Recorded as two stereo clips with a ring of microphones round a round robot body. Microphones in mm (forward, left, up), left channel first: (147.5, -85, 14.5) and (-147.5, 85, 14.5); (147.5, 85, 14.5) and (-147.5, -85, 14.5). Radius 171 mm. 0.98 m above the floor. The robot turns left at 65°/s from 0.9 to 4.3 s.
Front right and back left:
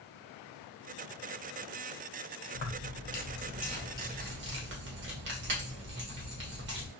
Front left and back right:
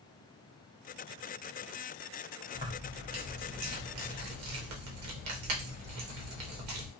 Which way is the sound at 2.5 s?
35° right.